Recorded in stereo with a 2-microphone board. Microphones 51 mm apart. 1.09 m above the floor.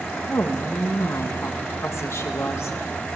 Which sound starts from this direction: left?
A woman speaking, at 0.3 s.